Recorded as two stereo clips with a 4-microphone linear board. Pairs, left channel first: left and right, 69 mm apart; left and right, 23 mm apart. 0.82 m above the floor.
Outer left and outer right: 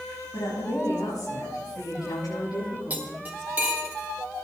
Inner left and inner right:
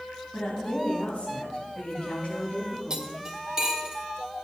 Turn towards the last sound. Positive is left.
turn(degrees=-25)  # may be behind; listen again after turning